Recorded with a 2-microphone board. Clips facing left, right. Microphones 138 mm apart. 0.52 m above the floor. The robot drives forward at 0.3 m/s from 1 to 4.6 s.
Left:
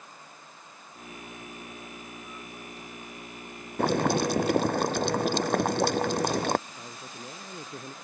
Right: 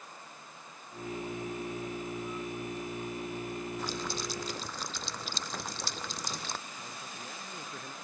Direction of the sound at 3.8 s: 70° left (ahead or behind).